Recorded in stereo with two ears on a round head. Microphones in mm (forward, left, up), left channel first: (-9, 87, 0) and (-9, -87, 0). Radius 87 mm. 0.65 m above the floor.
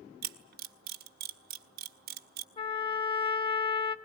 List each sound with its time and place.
0.2 s a camera shutter: 50° right (ahead or behind), 1.0 m
2.6 s a trumpet: 25° left (ahead or behind), 1.0 m